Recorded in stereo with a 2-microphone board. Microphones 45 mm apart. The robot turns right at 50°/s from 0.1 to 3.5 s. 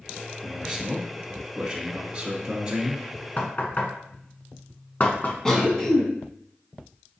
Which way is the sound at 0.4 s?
10° right (ahead or behind).